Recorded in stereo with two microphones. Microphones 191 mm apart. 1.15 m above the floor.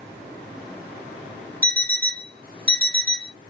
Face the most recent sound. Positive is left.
turn(degrees=-50)  # may be behind; listen again after turning